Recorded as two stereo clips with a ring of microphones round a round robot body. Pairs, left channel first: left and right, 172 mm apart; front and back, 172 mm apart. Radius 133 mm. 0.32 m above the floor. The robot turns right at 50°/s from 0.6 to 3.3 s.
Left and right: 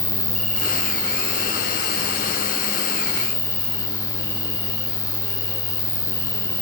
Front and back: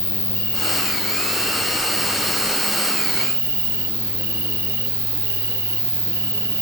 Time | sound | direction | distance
0.0 | an insect | 5° left | 1.4 m